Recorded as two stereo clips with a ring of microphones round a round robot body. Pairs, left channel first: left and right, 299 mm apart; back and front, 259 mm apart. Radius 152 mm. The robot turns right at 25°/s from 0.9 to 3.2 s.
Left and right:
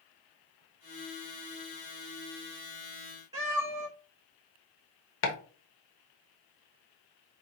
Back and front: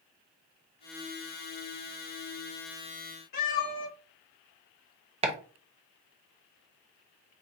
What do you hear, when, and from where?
3.3 s a cat meowing: 170° right, 3 m
5.2 s chopping: 60° left, 1.0 m